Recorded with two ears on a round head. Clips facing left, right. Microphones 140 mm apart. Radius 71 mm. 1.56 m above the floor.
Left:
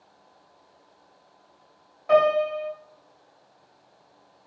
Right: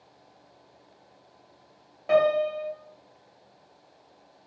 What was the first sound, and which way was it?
A piano, 30° right (ahead or behind).